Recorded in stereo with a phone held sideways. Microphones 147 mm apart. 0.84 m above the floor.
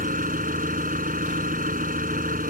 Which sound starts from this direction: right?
An engine running, at 0.0 s.